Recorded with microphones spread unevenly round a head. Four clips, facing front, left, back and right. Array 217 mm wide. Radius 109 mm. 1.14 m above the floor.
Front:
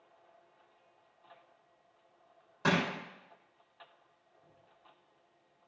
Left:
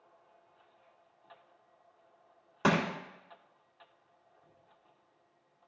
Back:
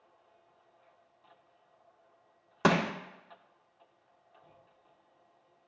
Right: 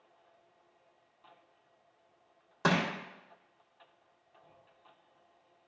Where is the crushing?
175° left, 1.6 m.